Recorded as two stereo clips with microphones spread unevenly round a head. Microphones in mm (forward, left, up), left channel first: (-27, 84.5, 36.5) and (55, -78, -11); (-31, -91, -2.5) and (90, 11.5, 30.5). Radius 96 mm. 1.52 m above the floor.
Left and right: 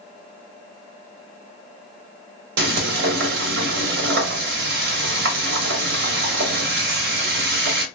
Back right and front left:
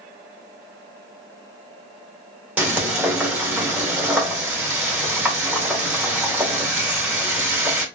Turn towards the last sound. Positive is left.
turn(degrees=-40)